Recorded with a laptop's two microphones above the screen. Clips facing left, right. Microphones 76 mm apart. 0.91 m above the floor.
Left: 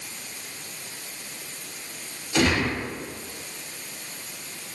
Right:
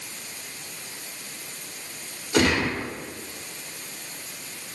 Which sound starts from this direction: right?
A gunshot, at 2.3 s.